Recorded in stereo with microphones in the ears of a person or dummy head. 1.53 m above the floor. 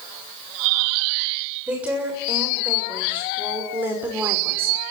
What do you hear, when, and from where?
1.7 s a woman speaking: 10° right (ahead or behind), 7 m; by 4.8 s 15° right (ahead or behind), 5.5 m